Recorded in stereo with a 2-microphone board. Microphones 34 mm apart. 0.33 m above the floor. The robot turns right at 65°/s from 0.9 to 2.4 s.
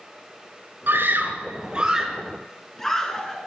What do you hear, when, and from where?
0.9 s a scream: 75° right (ahead or behind), 4.5 m; by 3.5 s 15° left (ahead or behind), 4.5 m